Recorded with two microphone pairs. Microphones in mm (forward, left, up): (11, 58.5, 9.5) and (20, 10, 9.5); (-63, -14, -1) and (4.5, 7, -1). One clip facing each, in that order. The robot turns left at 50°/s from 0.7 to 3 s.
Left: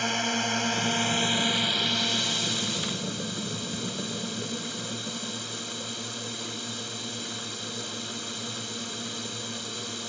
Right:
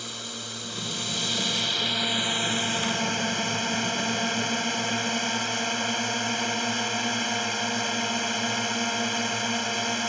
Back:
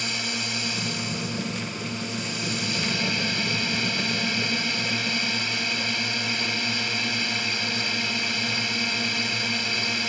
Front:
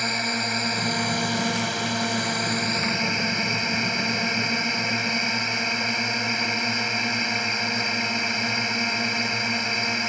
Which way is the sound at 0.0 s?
65° left.